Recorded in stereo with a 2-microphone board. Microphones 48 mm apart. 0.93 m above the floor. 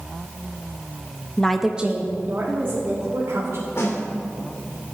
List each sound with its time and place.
1.4 s a woman speaking: 20° left (ahead or behind), 0.7 m; by 3.7 s 60° right (ahead or behind), 3 m
3.8 s a snare drum: 60° left (ahead or behind), 2.5 m